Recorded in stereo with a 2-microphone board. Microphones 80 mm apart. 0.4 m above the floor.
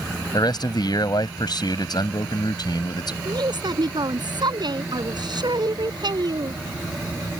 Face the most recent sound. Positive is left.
turn(degrees=-65)  # may be behind; listen again after turning